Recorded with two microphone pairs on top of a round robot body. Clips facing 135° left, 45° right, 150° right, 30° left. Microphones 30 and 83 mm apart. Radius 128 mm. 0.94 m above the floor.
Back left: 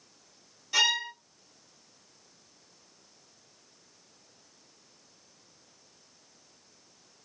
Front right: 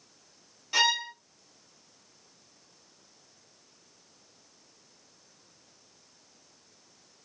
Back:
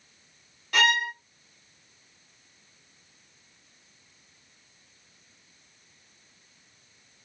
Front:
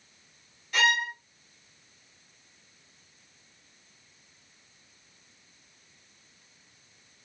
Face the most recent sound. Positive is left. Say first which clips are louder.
# even, back 2 dB
turn(degrees=-120)